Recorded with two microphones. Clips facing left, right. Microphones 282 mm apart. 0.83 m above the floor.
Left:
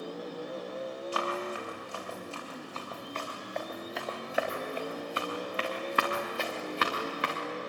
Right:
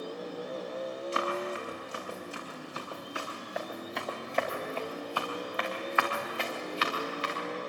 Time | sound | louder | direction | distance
1.1 | running footsteps | right 1 dB | 25° right (ahead or behind) | 8 m